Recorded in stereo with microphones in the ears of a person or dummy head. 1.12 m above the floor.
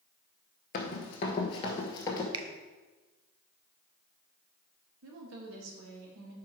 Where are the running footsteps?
35° left (ahead or behind), 1.3 m; by 2.2 s 20° left (ahead or behind), 1.4 m.